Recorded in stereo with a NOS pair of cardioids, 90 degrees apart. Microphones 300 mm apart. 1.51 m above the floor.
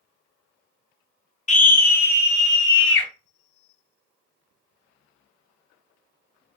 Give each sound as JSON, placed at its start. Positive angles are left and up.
{"t": 1.5, "sound": "a scream", "azimuth_deg": 25, "distance_m": 0.7}